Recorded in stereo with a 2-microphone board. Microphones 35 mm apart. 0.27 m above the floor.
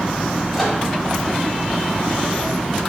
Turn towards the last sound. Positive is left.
turn(degrees=0)  # may be behind; listen again after turning